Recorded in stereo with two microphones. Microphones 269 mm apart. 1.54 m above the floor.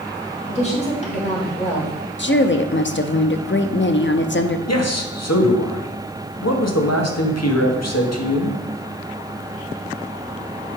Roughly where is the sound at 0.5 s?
Left.